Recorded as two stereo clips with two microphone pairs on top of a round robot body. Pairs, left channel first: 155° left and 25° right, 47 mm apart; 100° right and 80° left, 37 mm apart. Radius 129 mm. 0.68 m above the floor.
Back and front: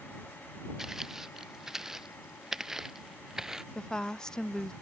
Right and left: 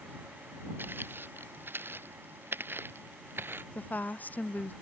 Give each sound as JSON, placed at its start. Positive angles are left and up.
{"t": 0.8, "sound": "footsteps", "azimuth_deg": 55}
{"t": 3.8, "sound": "a woman speaking", "azimuth_deg": -125}